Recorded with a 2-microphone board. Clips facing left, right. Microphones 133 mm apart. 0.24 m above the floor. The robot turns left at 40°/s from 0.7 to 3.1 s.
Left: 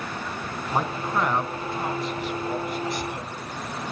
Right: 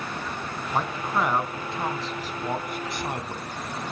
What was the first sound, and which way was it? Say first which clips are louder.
A man speaking: left 1 dB; 15° left.